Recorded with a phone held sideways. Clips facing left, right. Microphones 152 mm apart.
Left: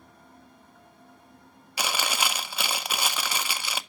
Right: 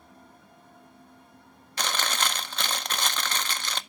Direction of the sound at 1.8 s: 10° left (ahead or behind).